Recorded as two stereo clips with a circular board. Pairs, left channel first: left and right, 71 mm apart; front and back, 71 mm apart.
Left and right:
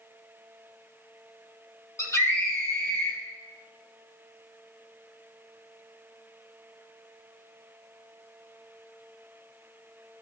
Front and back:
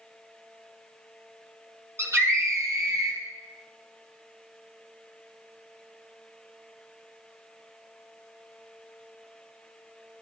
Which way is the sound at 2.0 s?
135° left.